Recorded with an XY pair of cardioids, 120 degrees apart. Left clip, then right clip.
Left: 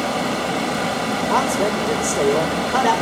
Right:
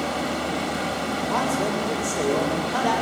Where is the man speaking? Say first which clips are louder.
Left 5 dB; 70° left, 7 m.